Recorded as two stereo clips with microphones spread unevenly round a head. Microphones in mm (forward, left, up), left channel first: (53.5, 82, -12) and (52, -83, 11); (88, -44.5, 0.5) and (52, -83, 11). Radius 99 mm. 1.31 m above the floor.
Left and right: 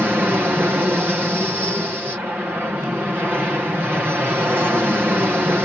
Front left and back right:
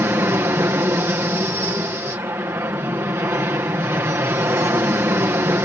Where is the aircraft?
175° right.